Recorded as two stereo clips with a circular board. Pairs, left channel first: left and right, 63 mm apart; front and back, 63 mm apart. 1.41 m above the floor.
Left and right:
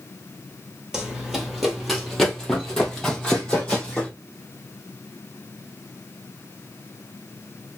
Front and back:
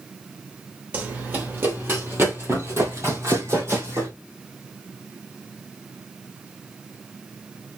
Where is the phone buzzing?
I don't hear a phone buzzing.